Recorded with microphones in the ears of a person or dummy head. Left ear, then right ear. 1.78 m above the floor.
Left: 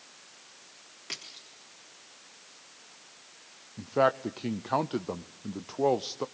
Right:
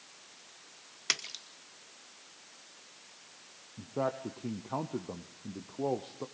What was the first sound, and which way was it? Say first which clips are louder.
A splash: right 7 dB; 45° right (ahead or behind).